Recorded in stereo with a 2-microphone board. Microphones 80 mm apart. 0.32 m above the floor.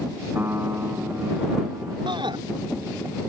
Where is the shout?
75° right (ahead or behind).